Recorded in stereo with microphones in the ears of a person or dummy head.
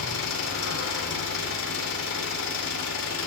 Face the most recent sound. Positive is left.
turn(degrees=70)  # may be behind; listen again after turning